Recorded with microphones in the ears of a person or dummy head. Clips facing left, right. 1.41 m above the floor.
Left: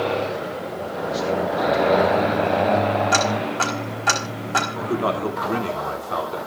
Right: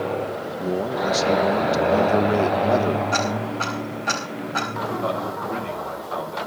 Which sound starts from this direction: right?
A man speaking, at 0.6 s.